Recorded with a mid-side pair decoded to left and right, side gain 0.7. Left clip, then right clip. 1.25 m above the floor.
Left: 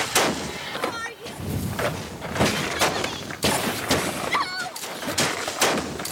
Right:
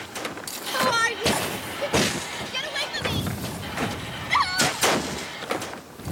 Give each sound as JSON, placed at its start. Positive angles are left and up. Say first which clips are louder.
{"t": 0.7, "sound": "a shout", "louder": "right 10 dB", "azimuth_deg": -45}